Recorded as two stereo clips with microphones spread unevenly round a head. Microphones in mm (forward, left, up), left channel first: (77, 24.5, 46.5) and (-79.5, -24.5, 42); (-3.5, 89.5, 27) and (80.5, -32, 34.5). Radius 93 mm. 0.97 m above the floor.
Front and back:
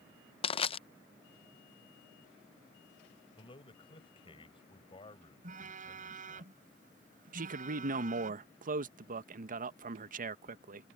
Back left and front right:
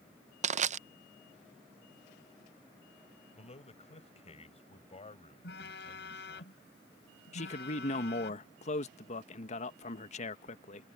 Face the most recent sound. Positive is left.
turn(degrees=165)